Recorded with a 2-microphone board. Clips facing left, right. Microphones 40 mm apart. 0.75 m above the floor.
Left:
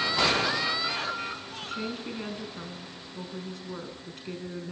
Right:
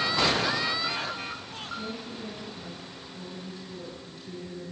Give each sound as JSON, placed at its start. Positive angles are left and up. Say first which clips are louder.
{"t": 1.6, "sound": "a woman speaking", "louder": "left 3 dB", "side_deg": 65, "distance_m": 7.0}